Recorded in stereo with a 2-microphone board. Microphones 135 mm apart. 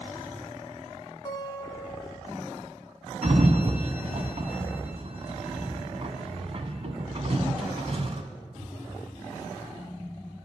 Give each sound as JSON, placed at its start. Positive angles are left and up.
{"t": 1.2, "sound": "a guitar", "side_deg": 30, "distance_m": 0.9}
{"t": 3.2, "sound": "a sliding door", "side_deg": -50, "distance_m": 0.9}